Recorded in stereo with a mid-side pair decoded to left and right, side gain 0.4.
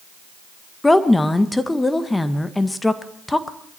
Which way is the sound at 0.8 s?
15° left.